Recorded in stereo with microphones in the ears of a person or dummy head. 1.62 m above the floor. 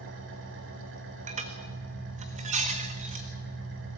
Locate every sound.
0.0 s an engine running: 65° right (ahead or behind), 3 m
1.3 s dishes clattering: 35° right (ahead or behind), 1.9 m